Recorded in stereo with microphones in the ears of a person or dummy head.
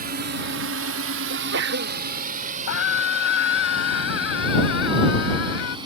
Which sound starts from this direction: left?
A scream, at 2.7 s.